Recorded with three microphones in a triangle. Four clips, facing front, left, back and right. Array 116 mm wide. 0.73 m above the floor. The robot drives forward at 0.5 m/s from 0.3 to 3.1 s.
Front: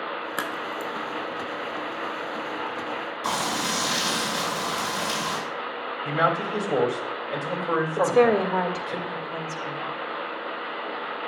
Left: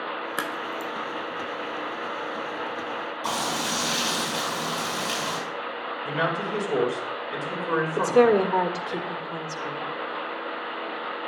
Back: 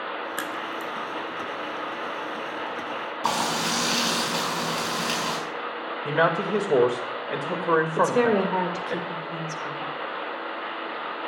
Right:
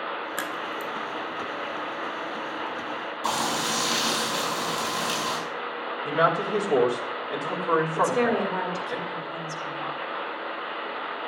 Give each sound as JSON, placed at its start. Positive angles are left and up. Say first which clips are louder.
{"t": 0.4, "sound": "a crack", "louder": "left 1 dB, front 1 dB", "azimuth_deg": 55, "distance_m": 0.5}
{"t": 3.2, "sound": "frying", "louder": "right 2 dB, back 2 dB", "azimuth_deg": -175, "distance_m": 6.5}
{"t": 6.0, "sound": "a man speaking", "louder": "right 4 dB, back 1 dB", "azimuth_deg": -165, "distance_m": 2.5}
{"t": 8.0, "sound": "a woman speaking", "louder": "left 4 dB, front 6 dB", "azimuth_deg": 115, "distance_m": 2.0}